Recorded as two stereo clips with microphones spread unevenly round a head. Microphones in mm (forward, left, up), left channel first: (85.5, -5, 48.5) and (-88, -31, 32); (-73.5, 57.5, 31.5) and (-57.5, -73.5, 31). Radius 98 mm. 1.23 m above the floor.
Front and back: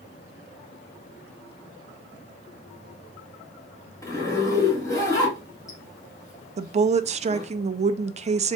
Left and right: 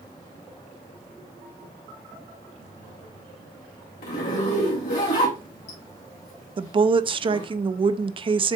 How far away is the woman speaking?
About 0.5 m.